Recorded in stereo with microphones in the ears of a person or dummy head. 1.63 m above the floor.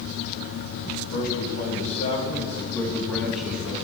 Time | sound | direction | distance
1.1 | a man speaking | 50° left (ahead or behind) | 3 m